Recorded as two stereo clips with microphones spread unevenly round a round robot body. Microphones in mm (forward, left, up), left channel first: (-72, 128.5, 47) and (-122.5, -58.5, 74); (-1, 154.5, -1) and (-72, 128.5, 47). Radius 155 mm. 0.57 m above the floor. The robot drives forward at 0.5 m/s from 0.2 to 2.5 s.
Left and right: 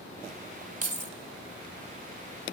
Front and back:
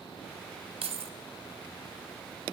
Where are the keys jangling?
155° right, 1.1 m; by 1.1 s 160° right, 1.2 m.